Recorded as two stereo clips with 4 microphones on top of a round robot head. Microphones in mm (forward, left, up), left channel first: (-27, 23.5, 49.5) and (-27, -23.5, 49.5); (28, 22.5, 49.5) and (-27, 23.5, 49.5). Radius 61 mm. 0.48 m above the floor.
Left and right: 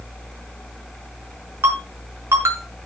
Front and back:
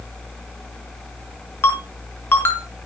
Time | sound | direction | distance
1.6 | a ringtone | 60° right | 5 m